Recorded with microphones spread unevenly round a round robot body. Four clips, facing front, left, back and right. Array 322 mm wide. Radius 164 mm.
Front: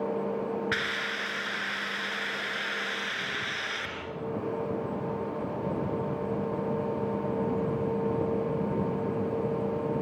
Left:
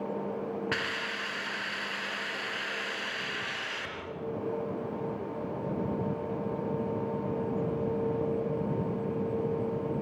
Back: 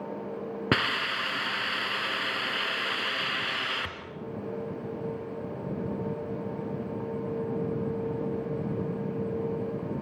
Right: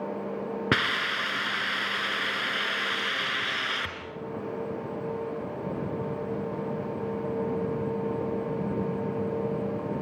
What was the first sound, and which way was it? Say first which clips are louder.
A hiss: right 6 dB, back 4 dB; 140° right.